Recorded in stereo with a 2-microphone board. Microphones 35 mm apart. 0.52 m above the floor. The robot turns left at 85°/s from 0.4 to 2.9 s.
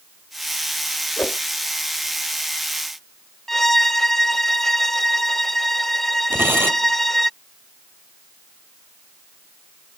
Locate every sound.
1.2 s a whoosh: 80° left; by 1.4 s 60° left (ahead or behind)
3.5 s a violin: 10° left (ahead or behind)
6.3 s tearing paper: 85° right